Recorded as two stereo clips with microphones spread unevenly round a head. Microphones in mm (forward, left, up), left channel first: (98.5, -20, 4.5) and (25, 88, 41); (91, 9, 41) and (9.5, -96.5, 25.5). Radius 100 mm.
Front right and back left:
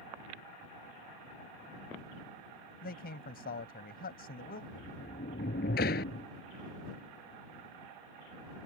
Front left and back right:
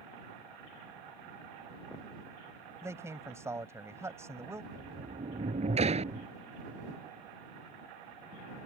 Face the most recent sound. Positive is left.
turn(degrees=-90)